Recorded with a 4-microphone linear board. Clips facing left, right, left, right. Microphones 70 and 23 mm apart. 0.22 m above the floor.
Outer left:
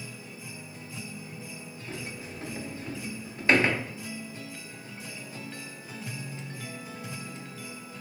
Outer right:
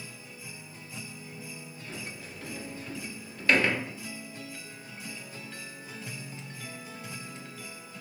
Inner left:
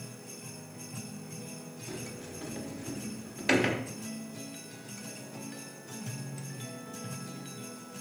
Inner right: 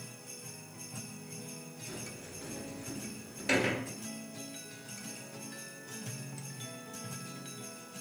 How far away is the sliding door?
About 0.6 m.